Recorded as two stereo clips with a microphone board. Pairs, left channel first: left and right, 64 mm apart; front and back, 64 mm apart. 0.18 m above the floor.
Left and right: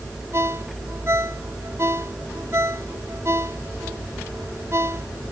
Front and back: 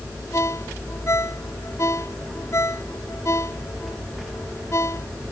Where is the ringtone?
40° right.